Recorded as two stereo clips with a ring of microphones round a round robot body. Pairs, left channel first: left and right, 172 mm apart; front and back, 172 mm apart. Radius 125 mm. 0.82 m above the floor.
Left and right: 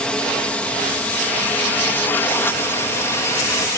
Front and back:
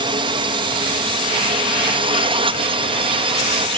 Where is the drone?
170° left; by 3.8 s 155° left.